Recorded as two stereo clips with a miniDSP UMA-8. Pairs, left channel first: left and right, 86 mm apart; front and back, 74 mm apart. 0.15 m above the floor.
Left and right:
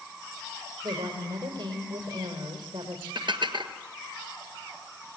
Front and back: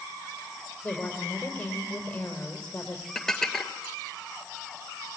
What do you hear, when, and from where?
0.8 s a woman speaking: 70° right, 5 m
3.1 s dishes clattering: 80° right, 1.7 m